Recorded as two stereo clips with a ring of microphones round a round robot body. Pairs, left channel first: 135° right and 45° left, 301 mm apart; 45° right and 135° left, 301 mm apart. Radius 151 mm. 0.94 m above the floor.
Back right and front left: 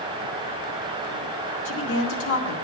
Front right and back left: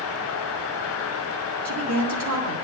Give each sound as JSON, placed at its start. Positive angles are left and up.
{"t": 1.6, "sound": "a woman speaking", "azimuth_deg": 175, "distance_m": 1.8}